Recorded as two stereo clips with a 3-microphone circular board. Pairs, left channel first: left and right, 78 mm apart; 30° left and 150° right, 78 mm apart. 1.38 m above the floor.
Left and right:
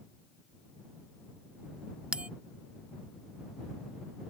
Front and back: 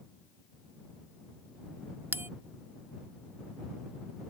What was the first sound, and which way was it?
A bell, 150° right.